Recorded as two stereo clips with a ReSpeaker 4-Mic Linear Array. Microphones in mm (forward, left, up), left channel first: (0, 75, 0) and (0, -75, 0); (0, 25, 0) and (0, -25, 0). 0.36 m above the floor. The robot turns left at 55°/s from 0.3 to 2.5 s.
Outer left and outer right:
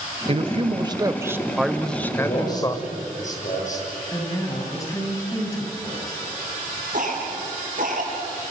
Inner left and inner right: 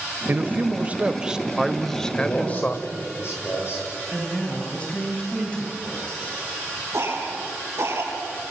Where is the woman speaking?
25° left (ahead or behind), 7 m.